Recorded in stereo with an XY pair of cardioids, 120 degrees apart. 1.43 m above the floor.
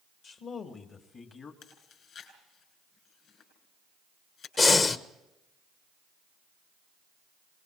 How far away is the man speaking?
About 2.5 m.